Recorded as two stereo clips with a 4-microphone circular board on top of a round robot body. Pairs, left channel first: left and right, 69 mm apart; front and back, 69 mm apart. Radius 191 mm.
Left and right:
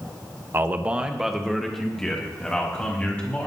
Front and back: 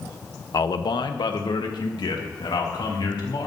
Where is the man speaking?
35° right, 1.1 m; by 3.5 s 15° left, 4 m.